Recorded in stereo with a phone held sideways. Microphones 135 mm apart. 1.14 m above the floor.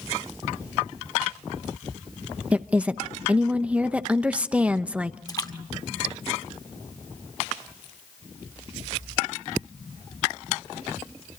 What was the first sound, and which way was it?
A woman speaking, 10° right (ahead or behind).